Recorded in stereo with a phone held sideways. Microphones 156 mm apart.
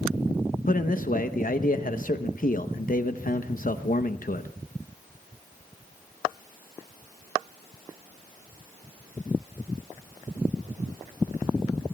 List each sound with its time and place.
0.7 s a man speaking: 65° left (ahead or behind), 0.8 m